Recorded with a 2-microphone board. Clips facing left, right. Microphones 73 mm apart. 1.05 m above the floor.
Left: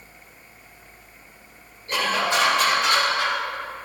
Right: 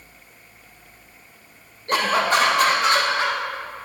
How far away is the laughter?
About 1.4 m.